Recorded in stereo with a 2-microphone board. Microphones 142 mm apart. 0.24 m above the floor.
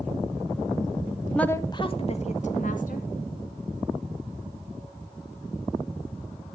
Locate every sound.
1.3 s a woman speaking: 5° left (ahead or behind), 1.1 m; by 3.1 s 65° left (ahead or behind), 3 m